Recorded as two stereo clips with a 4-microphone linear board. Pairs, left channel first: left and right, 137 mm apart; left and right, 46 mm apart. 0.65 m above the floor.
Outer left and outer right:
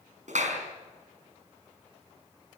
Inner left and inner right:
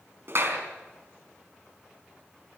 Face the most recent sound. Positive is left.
turn(degrees=-60)  # may be behind; listen again after turning